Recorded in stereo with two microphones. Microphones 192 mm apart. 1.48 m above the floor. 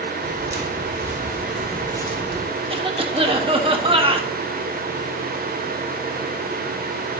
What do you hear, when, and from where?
0.2 s footsteps: 45° right (ahead or behind), 2.5 m; by 2.5 s 35° left (ahead or behind), 1.8 m
2.7 s a cough: 30° right (ahead or behind), 1.2 m